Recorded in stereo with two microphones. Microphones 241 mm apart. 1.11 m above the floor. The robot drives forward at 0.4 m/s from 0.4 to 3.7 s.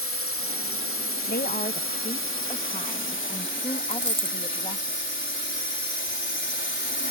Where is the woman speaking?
40° left (ahead or behind); by 4.9 s 20° left (ahead or behind).